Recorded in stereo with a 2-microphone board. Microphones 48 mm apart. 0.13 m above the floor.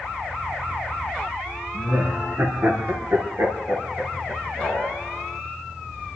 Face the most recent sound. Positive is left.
turn(degrees=-35)  # may be behind; listen again after turning